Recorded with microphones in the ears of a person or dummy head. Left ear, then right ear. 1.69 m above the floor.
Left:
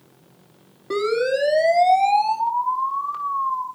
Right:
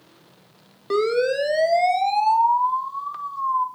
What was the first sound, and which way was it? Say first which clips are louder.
A siren: even; 60° right (ahead or behind).